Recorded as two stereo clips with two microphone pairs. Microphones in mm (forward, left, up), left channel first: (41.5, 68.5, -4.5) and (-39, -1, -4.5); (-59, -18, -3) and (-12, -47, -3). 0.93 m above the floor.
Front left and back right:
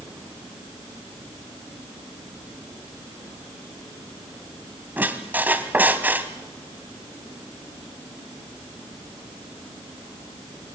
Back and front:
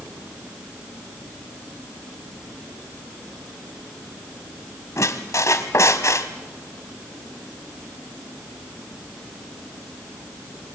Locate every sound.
5.0 s a squeak: 150° left, 1.4 m